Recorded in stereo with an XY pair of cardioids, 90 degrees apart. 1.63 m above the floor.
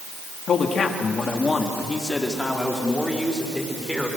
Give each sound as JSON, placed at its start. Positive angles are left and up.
{"t": 0.5, "sound": "a man speaking", "azimuth_deg": 65, "distance_m": 3.5}